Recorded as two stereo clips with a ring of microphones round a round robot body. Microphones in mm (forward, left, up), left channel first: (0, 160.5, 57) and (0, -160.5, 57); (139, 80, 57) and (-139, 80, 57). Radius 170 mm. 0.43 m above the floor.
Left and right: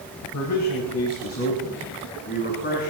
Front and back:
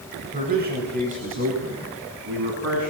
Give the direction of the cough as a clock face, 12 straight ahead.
No cough in this recording.